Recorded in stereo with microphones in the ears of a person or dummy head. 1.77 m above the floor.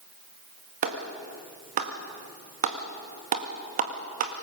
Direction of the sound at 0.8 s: 40° right (ahead or behind).